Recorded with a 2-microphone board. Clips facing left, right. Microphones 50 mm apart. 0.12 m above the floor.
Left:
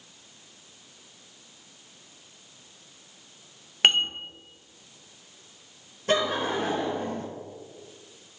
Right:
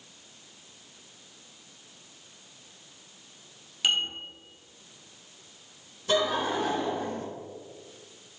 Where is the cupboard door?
I don't hear a cupboard door.